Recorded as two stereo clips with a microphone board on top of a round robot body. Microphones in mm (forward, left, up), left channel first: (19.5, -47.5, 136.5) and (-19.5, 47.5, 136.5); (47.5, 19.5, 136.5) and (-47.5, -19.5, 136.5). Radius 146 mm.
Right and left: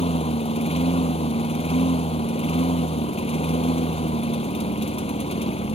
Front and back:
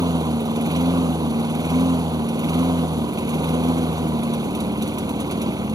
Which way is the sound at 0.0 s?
100° right.